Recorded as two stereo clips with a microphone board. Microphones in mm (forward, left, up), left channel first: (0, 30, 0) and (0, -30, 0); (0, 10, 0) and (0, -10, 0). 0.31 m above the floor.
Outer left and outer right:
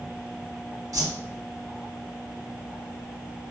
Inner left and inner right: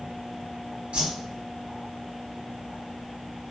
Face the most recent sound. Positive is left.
turn(degrees=-70)  # may be behind; listen again after turning